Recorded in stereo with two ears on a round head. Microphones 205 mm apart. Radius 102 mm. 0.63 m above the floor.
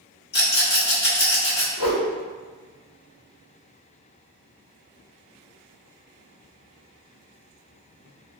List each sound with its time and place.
0.3 s a rattle: 45° left (ahead or behind), 1.4 m
1.8 s a whoosh: 85° left, 1.3 m